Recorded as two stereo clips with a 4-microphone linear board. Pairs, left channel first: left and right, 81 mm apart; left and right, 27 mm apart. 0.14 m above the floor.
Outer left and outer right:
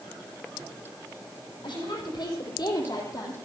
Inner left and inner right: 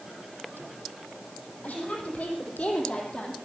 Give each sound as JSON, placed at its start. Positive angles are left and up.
{"t": 1.6, "sound": "a woman speaking", "side_deg": 65, "distance_m": 5.0}